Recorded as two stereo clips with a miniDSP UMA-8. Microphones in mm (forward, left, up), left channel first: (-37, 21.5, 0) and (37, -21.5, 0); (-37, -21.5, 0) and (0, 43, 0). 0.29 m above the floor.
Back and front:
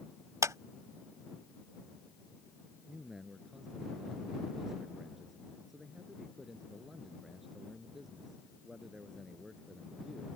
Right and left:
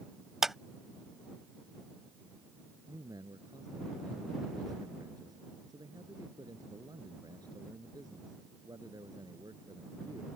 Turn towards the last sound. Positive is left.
turn(degrees=55)